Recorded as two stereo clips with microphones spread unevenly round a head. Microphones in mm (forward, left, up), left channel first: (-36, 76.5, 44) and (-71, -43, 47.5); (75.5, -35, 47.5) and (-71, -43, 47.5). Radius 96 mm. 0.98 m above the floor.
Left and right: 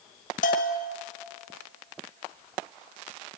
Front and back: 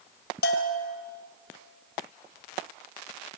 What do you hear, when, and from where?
0.4 s a bell: 35° left, 2 m